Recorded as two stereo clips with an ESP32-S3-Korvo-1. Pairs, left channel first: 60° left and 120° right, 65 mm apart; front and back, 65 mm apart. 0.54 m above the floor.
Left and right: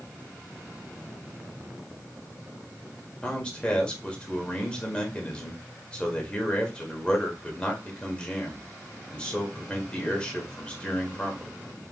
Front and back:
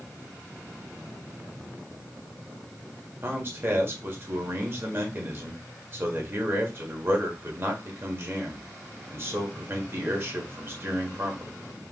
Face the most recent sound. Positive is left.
turn(degrees=135)